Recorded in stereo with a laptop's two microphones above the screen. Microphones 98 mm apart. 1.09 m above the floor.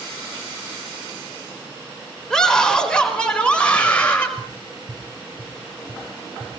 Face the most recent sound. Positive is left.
turn(degrees=-30)  # may be behind; listen again after turning